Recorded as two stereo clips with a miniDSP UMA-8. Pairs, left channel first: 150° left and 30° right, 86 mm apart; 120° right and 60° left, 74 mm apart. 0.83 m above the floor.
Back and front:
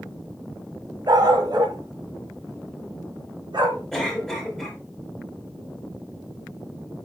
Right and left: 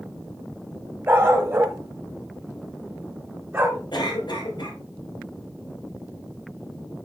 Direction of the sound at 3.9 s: 130° right.